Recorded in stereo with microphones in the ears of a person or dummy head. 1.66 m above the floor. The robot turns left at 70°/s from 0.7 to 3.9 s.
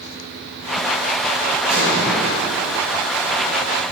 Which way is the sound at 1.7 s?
135° right.